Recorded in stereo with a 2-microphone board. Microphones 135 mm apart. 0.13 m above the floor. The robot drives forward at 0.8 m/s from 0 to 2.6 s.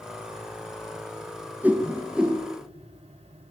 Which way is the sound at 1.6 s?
15° right (ahead or behind).